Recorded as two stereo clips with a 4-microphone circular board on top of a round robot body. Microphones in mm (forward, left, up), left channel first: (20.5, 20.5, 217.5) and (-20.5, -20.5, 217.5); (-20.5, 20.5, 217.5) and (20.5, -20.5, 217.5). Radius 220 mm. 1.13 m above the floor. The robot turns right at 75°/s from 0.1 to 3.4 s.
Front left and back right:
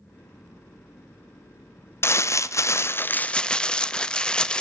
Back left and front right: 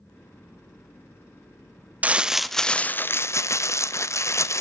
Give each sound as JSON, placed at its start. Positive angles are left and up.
{"t": 2.0, "sound": "crumpling", "azimuth_deg": 15, "distance_m": 0.6}